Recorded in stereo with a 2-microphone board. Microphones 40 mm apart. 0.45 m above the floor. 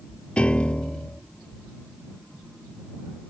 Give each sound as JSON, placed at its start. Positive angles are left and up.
{"t": 0.4, "sound": "a piano", "side_deg": 30}